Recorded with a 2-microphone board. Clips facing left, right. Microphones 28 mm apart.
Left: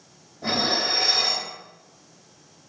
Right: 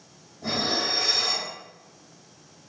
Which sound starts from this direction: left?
Dishes clattering, at 0.4 s.